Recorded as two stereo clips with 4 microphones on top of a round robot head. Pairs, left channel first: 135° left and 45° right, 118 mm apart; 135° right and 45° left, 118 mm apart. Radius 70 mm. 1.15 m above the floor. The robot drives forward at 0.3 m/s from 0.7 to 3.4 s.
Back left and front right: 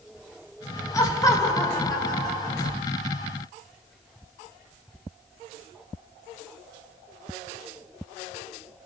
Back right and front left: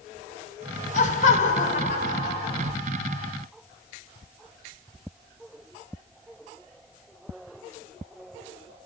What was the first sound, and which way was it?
Laughter, 160° right.